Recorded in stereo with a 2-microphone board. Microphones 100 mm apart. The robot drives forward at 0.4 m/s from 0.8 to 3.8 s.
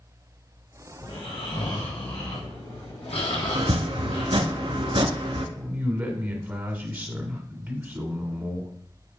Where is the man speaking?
20° right (ahead or behind), 1.1 m.